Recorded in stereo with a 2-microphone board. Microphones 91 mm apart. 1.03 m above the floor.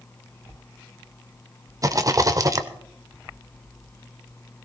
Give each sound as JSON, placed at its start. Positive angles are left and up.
{"t": 1.8, "sound": "a rattle", "side_deg": -40, "distance_m": 0.8}